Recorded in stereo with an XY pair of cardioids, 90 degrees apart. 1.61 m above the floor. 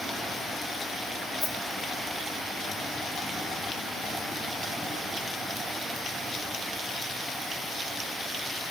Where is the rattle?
35° left, 1.9 m.